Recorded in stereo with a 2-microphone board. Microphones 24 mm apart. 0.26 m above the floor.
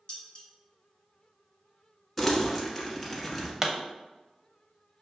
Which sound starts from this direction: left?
Dishes clattering, at 0.1 s.